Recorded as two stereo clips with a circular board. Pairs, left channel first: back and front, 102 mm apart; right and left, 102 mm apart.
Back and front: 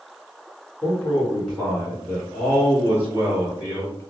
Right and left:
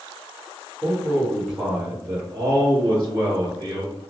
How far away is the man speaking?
About 1.4 m.